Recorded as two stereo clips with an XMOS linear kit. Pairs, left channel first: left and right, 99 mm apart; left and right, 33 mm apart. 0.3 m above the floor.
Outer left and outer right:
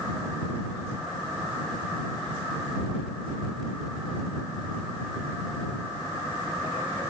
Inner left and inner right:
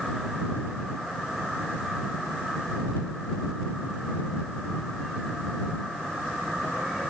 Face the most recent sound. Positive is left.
No sound to turn to.